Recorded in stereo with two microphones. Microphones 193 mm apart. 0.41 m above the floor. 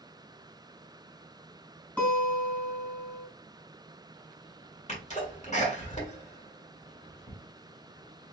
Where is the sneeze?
35° left (ahead or behind), 1.8 m.